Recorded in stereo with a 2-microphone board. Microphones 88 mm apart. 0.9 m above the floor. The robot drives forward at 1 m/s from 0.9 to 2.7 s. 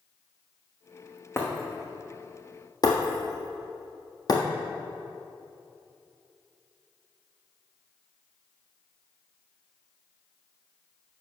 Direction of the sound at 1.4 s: 30° left (ahead or behind).